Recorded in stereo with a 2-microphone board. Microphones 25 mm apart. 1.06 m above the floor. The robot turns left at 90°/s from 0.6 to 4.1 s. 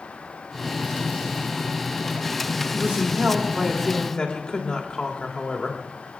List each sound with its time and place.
2.7 s a woman speaking: 95° right, 2.5 m; by 5.8 s 145° left, 2.5 m